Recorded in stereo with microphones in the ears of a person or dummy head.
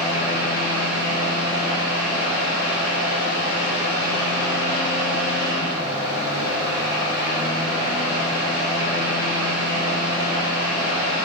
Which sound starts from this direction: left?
A fan, at 0.0 s.